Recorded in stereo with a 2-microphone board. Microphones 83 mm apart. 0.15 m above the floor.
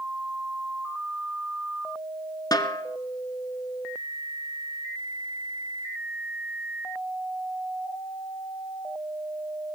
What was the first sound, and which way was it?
A snare drum, 50° left (ahead or behind).